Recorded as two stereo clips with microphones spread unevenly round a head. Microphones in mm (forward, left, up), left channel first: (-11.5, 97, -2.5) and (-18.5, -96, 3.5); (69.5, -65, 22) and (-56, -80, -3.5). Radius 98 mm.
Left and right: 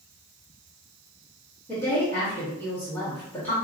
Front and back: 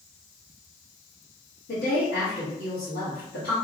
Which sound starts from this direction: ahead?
A woman speaking, at 1.7 s.